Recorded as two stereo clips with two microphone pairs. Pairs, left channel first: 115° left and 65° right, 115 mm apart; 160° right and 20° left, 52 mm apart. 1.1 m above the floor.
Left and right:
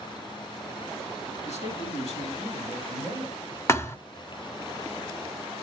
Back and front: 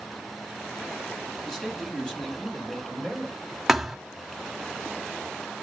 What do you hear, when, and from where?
1.4 s a man speaking: 120° left, 3 m; by 3.4 s 135° left, 4.5 m
3.7 s a thud: 110° left, 1.0 m